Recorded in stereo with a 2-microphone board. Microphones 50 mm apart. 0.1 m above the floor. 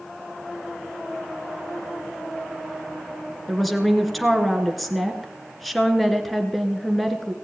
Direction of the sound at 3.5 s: Centre (ahead or behind).